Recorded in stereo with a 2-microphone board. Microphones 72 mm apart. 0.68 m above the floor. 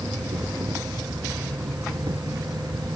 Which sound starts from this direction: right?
An insect, at 0.0 s.